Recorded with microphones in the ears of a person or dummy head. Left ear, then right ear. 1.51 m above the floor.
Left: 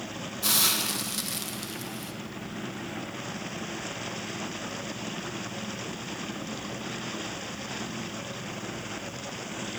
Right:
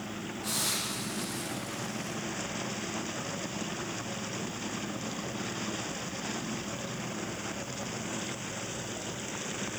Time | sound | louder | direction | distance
0.4 | a hiss | left 7 dB | 75° left (ahead or behind) | 1.3 m